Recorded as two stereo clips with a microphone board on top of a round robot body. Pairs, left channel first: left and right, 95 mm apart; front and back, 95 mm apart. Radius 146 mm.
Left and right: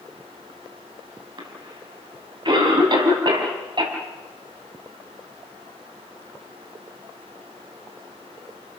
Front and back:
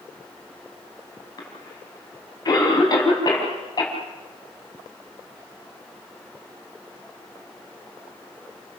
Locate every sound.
1.4 s a cough: 50° right, 6.5 m